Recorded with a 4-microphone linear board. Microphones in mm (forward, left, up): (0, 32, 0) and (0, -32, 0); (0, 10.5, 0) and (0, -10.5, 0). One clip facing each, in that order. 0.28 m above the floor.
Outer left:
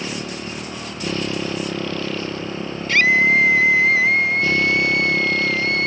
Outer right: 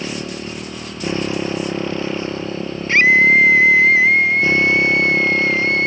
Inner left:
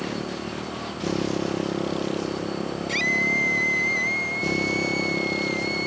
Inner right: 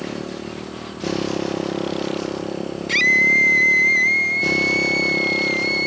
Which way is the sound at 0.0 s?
20° right (ahead or behind).